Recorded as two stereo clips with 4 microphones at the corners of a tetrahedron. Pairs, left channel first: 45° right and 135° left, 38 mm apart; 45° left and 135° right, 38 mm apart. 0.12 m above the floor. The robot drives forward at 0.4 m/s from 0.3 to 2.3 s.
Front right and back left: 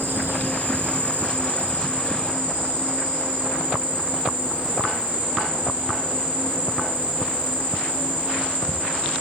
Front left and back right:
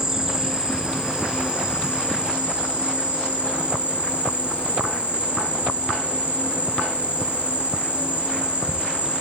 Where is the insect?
155° left, 0.8 m; by 9.2 s 165° left, 1.6 m.